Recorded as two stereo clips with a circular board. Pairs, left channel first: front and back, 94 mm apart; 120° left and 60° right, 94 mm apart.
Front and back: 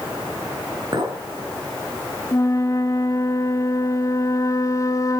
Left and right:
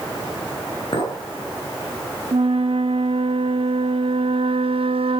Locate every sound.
0.9 s a clink: 140° left, 3.5 m
2.3 s a flute: 55° right, 0.7 m